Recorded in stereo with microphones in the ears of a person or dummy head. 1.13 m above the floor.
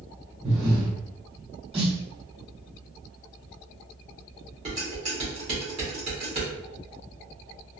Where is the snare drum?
25° right (ahead or behind), 1.6 m.